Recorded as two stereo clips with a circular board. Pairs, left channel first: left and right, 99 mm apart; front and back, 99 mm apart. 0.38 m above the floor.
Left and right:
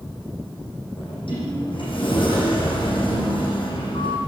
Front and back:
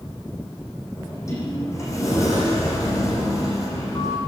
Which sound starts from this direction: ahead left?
A sliding door, at 1.0 s.